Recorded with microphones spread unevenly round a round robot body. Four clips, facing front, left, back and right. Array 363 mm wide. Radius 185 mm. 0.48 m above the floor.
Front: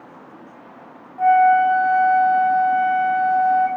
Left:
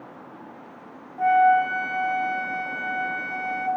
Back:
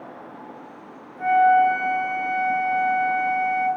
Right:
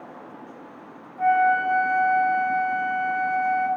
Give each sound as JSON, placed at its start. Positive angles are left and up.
{"t": 1.2, "sound": "a flute", "azimuth_deg": 50, "distance_m": 2.0}